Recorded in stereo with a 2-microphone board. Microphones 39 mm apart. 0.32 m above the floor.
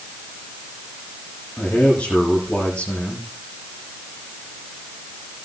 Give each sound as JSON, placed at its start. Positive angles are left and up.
{"t": 1.6, "sound": "a man speaking", "side_deg": 45, "distance_m": 8.5}